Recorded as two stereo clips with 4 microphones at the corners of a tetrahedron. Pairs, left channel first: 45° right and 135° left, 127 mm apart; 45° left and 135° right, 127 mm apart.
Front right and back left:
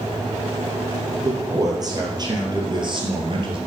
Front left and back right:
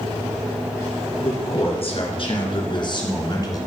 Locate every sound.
1.2 s a man speaking: 75° left, 3 m; by 3.6 s 100° left, 2 m